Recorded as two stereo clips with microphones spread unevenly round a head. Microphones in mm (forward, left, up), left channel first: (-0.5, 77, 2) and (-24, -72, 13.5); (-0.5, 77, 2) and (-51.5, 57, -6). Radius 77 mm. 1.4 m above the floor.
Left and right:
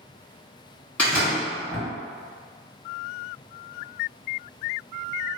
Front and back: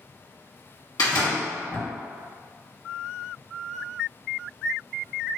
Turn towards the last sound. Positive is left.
turn(degrees=0)